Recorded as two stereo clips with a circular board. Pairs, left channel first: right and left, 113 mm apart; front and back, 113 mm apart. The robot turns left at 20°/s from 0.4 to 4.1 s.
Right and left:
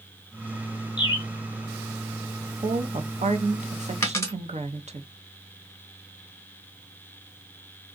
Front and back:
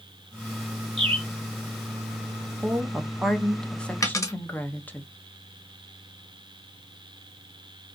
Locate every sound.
1.0 s a bird: 140° right, 0.7 m; by 1.3 s 145° right, 0.7 m
2.6 s a woman speaking: 105° left, 0.6 m; by 5.0 s 75° left, 0.6 m
4.0 s a dropped coin: 40° right, 0.9 m; by 4.3 s 45° right, 0.9 m